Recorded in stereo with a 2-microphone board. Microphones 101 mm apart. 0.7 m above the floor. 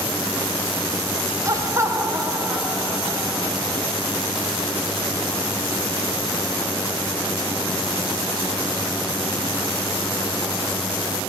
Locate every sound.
1.4 s laughter: 30° right (ahead or behind), 0.7 m; by 3.6 s 15° right (ahead or behind), 1.9 m